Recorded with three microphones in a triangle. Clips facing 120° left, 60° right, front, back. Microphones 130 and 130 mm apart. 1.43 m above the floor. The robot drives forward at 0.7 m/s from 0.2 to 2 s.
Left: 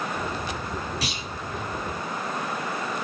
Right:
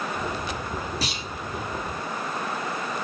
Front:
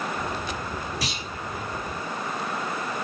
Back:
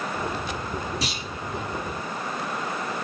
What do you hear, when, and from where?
1.0 s a clunk: 115° right, 4 m